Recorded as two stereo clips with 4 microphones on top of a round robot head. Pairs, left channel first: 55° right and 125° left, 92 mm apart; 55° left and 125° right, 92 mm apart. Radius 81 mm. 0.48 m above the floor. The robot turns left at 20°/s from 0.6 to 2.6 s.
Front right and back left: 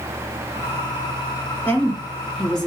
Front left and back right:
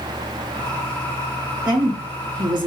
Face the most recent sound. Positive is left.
turn(degrees=-135)